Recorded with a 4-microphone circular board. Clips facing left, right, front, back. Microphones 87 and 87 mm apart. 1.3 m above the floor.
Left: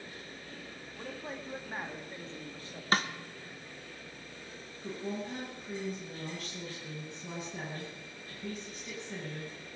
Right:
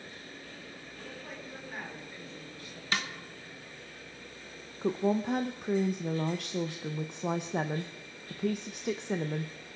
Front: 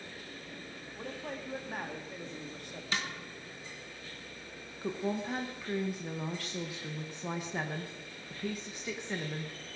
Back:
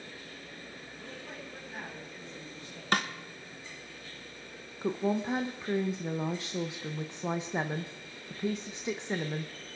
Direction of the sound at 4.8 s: 110° right.